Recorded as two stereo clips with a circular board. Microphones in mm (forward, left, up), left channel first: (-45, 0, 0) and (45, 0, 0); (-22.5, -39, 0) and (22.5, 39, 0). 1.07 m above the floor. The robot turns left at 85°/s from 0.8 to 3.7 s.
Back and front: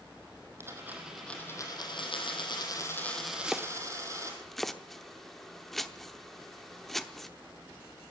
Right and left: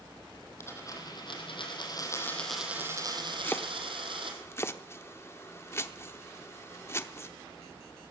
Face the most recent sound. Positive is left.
turn(degrees=-95)